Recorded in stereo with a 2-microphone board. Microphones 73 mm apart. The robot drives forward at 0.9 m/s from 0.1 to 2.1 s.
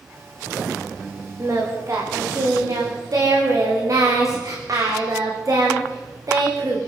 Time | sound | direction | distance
1.4 | singing | 50° right (ahead or behind) | 9.5 m